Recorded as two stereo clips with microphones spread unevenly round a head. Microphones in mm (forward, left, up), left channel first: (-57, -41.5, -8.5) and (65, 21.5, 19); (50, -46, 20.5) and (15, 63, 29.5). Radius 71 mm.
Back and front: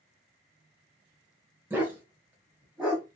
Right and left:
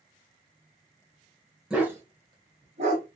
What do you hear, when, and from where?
1.7 s a dog barking: 45° left, 0.9 m; by 3.0 s 105° left, 1.5 m